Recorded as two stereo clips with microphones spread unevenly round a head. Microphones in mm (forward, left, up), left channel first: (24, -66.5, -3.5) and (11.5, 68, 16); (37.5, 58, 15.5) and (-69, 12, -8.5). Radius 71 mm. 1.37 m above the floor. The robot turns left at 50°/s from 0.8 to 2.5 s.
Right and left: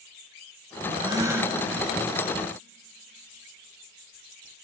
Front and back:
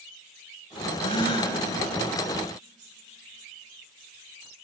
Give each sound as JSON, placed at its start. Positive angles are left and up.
{"t": 1.0, "sound": "a gasp", "azimuth_deg": 50, "distance_m": 2.0}